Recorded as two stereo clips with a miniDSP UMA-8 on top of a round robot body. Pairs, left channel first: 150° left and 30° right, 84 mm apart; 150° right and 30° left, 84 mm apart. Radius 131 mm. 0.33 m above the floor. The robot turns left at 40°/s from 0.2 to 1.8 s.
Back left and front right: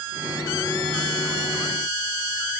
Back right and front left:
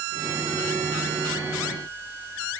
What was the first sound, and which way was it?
Only background noise.